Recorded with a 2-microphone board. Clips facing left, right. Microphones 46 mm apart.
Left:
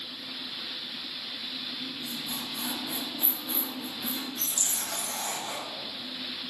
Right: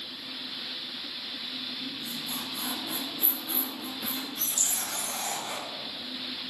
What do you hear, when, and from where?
1.8 s a squeak: 5° right (ahead or behind), 1.0 m
4.6 s a rattle: 30° right (ahead or behind), 1.1 m